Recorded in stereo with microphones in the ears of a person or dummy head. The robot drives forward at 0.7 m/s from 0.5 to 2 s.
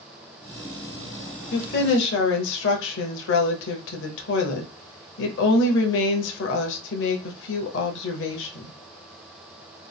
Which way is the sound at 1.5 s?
55° left (ahead or behind).